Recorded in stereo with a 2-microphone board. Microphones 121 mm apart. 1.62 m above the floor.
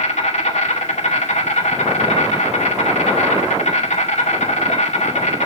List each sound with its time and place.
0.0 s an insect: 70° left (ahead or behind), 2.5 m